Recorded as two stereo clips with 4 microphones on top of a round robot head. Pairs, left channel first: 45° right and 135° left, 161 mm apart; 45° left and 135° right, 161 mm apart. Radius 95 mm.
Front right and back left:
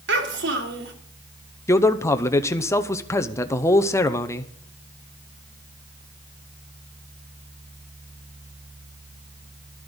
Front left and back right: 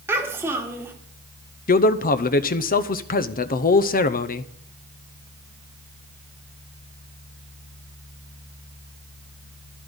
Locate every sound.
0.1 s a child speaking: 150° left, 2.5 m
1.7 s a man speaking: 25° left, 0.8 m